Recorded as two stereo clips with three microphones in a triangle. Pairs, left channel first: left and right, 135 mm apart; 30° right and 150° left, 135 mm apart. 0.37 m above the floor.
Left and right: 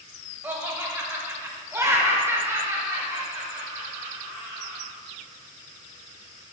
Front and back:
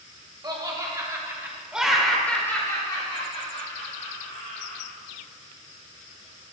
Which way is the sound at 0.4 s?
160° right.